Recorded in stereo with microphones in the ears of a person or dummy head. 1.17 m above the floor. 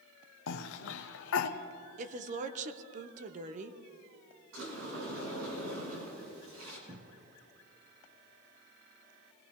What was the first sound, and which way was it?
A cough, 70° left (ahead or behind).